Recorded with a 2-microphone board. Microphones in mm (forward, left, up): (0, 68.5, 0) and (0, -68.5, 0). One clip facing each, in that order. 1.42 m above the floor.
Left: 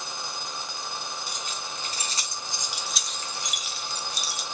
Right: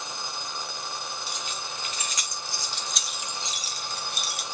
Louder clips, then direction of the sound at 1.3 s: Even; 45° left (ahead or behind).